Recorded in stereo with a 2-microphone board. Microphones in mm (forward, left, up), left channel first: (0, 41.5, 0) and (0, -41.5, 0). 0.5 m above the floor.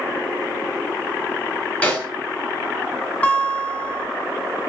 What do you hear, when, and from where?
1.8 s a snare drum: 20° left (ahead or behind), 1.3 m
3.2 s a guitar: 15° left (ahead or behind), 0.8 m